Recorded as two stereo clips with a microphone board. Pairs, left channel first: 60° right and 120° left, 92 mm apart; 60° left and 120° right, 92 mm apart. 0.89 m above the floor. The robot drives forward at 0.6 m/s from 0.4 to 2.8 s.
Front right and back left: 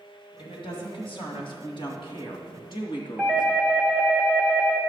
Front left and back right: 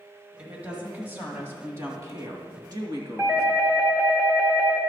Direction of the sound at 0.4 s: 45° right.